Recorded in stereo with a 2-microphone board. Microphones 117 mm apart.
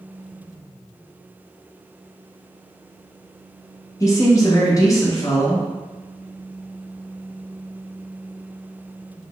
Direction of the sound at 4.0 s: 25° left (ahead or behind).